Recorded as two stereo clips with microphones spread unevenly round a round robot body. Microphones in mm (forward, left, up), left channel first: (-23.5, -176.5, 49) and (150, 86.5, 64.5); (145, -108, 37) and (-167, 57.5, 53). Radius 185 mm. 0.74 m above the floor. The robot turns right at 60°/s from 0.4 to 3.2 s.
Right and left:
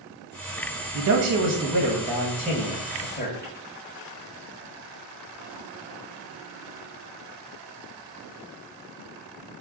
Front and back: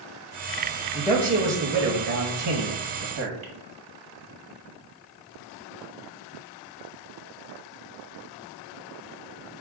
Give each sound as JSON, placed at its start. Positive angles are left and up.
{"t": 0.9, "sound": "a man speaking", "azimuth_deg": 60, "distance_m": 0.8}